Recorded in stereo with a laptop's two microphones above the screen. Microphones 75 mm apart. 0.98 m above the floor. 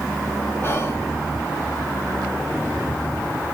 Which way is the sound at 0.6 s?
35° left (ahead or behind).